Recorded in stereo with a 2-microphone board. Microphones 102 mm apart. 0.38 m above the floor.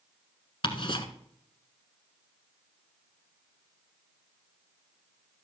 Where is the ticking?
50° left (ahead or behind), 1.3 m.